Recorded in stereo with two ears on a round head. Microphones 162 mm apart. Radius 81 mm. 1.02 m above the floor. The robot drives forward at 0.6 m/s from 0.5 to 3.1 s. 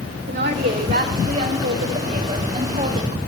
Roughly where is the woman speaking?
Right.